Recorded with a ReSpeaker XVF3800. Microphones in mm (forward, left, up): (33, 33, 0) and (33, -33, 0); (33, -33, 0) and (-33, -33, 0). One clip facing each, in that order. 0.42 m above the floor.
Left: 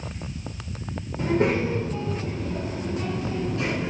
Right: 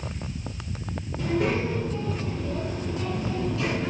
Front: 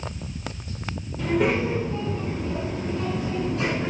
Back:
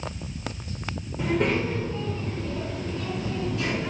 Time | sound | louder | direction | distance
1.2 | a child speaking | left 3 dB, front 2 dB | 120° left | 0.9 m